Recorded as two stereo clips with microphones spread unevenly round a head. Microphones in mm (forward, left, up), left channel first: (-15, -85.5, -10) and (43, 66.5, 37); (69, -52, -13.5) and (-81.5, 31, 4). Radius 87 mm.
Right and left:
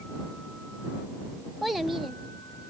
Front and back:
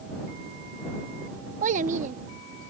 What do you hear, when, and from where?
1.6 s a child speaking: 145° left